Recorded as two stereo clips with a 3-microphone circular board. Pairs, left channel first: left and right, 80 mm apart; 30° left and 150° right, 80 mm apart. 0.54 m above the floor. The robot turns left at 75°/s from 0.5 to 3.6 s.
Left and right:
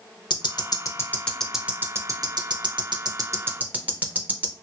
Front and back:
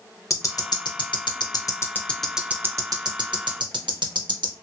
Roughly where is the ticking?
Left.